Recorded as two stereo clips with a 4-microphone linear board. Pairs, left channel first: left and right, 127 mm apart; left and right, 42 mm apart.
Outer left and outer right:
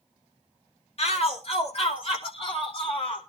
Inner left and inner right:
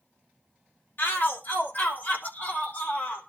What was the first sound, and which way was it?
A shout, 55° left (ahead or behind).